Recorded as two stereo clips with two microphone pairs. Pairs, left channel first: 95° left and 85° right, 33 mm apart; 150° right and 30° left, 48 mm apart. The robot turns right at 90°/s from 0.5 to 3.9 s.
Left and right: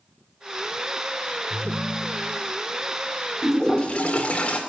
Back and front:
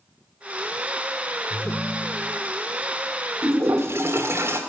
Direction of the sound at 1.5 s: 160° right.